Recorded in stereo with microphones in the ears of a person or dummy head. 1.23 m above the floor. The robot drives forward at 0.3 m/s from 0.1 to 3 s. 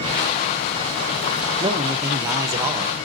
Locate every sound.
1.6 s a man speaking: 20° right (ahead or behind), 1.0 m; by 3.0 s 15° right (ahead or behind), 1.3 m